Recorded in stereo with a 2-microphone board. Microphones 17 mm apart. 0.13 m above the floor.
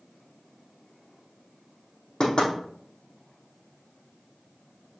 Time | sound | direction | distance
2.2 | knocking | 50° left (ahead or behind) | 4.5 m